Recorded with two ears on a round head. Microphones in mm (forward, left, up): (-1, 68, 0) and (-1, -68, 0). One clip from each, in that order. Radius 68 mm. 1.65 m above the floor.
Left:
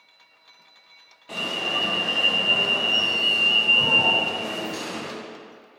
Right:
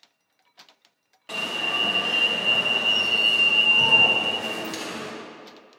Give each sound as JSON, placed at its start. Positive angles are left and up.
{"t": 1.3, "sound": "an alarm", "side_deg": -35, "distance_m": 1.7}